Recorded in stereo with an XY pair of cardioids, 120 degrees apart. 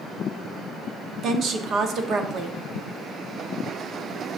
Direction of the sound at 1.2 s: 55° right.